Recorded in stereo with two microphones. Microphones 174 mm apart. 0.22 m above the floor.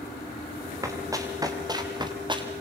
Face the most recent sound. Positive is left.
turn(degrees=-30)  # may be behind; listen again after turning